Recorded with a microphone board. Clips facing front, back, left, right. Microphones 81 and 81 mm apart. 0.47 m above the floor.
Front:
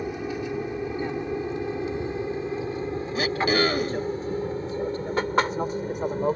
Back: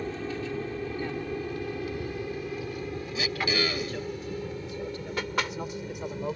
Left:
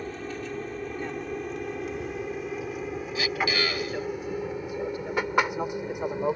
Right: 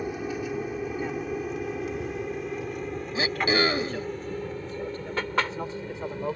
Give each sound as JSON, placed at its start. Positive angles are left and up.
{"t": 0.0, "sound": "an aircraft", "azimuth_deg": -35}
{"t": 3.1, "sound": "throat clearing", "azimuth_deg": -35}